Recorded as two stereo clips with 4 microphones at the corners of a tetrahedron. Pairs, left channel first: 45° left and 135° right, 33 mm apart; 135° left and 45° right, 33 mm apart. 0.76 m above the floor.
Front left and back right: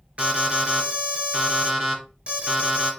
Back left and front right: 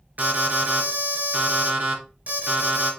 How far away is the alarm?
About 5 m.